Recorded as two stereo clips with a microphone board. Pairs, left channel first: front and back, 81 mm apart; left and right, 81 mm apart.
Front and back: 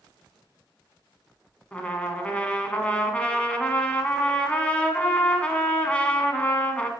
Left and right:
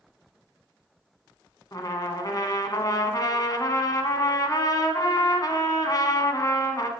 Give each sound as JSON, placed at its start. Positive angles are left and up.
{"t": 1.7, "sound": "a trumpet", "azimuth_deg": 70, "distance_m": 1.5}